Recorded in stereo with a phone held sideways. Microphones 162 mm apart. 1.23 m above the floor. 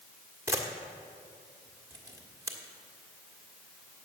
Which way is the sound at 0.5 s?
20° right (ahead or behind).